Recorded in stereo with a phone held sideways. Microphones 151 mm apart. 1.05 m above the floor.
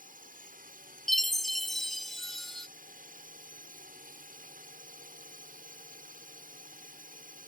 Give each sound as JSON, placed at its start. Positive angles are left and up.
{"t": 0.0, "sound": "a drone", "side_deg": -65}
{"t": 1.1, "sound": "a chime", "side_deg": 0}